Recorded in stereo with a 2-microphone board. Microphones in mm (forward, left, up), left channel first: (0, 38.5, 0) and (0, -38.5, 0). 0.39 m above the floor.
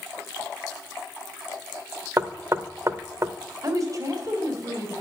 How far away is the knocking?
About 0.6 m.